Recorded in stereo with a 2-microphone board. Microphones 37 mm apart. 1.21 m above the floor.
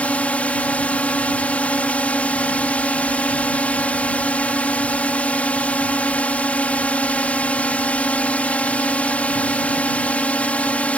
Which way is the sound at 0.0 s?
45° left (ahead or behind).